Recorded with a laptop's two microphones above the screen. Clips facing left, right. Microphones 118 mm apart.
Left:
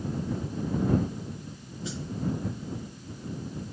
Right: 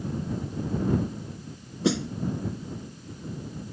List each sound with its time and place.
1.8 s a snare drum: 80° right